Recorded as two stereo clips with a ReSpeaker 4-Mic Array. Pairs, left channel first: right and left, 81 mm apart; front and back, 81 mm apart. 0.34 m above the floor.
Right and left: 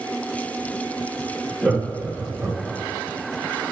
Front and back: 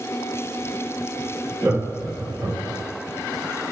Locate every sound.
1.6 s laughter: 155° right, 0.9 m; by 2.8 s 130° left, 1.2 m